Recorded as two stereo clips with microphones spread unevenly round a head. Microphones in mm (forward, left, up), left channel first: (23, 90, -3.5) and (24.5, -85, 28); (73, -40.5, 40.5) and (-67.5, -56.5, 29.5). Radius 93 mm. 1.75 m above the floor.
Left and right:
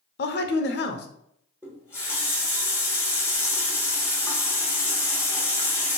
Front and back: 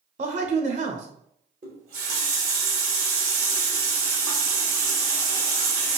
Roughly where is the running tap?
Behind.